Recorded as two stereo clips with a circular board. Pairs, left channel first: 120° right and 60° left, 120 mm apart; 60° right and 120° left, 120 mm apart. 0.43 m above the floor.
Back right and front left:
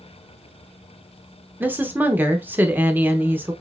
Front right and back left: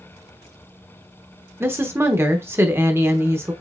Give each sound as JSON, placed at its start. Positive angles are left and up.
{"t": 1.6, "sound": "a woman speaking", "azimuth_deg": 100, "distance_m": 0.8}